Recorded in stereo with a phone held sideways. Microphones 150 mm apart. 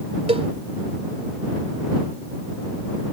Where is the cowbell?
45° right (ahead or behind).